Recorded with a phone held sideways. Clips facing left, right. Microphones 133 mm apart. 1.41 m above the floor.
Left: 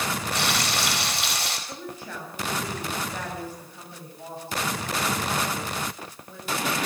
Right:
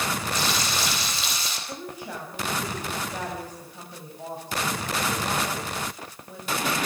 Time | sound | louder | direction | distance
0.3 | frying | left 1 dB | 65° left (ahead or behind) | 5 m
1.7 | a woman speaking | right 1 dB | 15° right (ahead or behind) | 8.5 m